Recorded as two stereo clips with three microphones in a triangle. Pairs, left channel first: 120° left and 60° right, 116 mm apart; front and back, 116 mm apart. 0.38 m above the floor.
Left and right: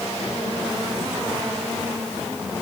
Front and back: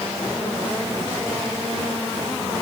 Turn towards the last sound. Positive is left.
No sound to turn to.